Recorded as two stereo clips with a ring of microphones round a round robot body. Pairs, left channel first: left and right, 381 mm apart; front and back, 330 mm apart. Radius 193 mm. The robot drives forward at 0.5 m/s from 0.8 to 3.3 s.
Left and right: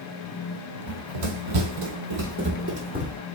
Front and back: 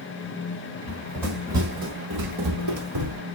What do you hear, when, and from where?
0.9 s running footsteps: 75° right, 1.5 m; by 3.2 s 170° right, 1.7 m